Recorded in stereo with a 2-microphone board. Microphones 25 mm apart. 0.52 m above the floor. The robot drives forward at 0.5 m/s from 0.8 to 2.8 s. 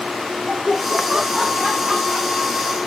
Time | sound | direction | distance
0.5 | laughter | 40° right (ahead or behind) | 1.0 m